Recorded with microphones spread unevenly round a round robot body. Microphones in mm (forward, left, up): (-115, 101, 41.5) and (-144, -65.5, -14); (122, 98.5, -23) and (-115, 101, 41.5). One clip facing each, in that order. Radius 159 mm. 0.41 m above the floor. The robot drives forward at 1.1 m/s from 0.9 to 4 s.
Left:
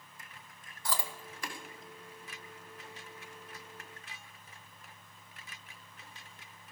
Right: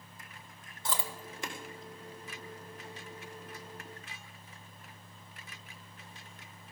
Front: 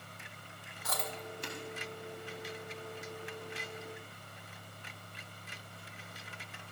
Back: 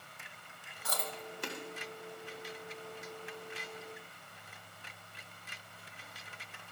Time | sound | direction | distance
0.8 | chewing | 115° right | 1.5 m